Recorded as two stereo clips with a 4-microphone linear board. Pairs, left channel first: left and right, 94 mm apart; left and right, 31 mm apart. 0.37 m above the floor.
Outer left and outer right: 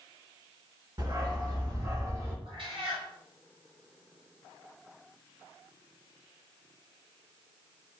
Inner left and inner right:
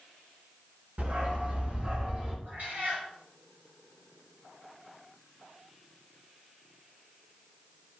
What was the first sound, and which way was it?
A dog barking, 50° right (ahead or behind).